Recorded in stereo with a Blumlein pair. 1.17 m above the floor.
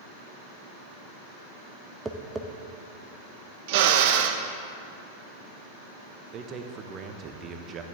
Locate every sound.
2.0 s tapping: 10° right, 0.8 m
3.7 s a drill: 50° right, 0.8 m
6.3 s a man speaking: 30° right, 1.0 m